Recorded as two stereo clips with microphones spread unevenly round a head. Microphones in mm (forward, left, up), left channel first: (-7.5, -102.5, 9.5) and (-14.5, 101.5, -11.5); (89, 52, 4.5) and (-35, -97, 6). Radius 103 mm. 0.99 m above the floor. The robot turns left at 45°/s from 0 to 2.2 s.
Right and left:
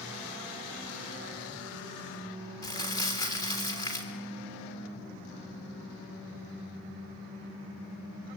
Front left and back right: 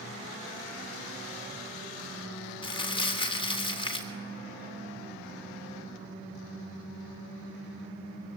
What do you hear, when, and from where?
2.6 s crumpling: 15° right, 3.5 m